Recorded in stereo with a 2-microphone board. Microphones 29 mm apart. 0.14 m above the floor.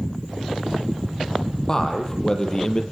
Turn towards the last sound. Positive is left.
turn(degrees=30)  # may be behind; listen again after turning